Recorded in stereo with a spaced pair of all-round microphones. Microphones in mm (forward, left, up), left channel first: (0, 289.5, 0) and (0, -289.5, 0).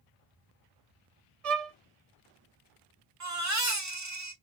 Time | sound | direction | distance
1.4 | a violin | 70° right (ahead or behind) | 0.7 m
3.2 | a baby crying | 30° right (ahead or behind) | 0.9 m